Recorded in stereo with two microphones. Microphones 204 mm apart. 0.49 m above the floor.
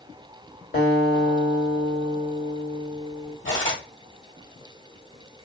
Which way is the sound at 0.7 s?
55° left (ahead or behind).